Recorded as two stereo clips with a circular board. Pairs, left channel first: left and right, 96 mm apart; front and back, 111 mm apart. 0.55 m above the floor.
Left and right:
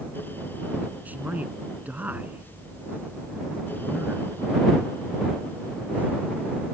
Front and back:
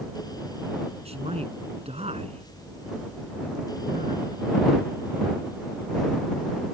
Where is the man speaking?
165° right.